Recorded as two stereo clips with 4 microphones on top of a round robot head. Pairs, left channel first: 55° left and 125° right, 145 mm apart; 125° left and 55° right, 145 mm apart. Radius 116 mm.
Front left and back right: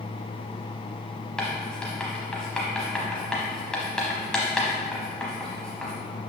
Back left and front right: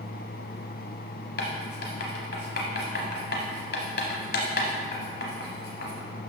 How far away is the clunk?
I don't hear a clunk.